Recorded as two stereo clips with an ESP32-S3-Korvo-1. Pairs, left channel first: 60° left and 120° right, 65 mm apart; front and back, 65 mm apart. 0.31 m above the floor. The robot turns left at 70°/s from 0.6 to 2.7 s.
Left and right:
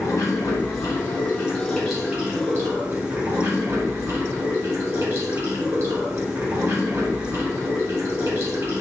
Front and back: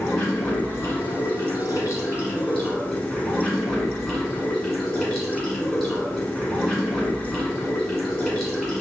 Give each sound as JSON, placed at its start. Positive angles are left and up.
{"t": 0.0, "sound": "running water", "azimuth_deg": 55, "distance_m": 1.6}